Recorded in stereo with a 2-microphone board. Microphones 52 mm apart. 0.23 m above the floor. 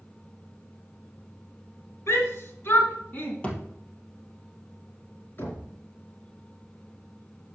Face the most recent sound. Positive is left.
turn(degrees=45)  # may be behind; listen again after turning